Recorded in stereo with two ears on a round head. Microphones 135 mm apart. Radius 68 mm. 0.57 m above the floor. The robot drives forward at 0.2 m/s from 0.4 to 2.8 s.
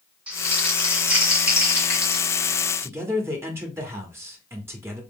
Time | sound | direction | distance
0.3 | crumpling | 10° right (ahead or behind) | 2 m
2.8 | a man speaking | 20° right (ahead or behind) | 1.1 m